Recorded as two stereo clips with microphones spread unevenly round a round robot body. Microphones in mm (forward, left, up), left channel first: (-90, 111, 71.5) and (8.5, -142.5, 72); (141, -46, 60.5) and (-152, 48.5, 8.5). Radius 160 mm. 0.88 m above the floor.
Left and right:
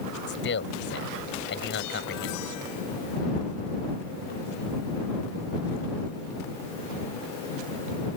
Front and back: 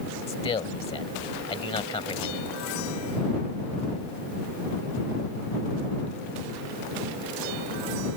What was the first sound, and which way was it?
A man speaking, 55° left.